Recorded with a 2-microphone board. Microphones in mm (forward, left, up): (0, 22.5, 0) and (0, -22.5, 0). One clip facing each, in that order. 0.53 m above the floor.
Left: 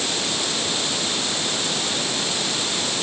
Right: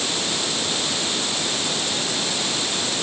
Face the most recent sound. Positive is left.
No sound to turn to.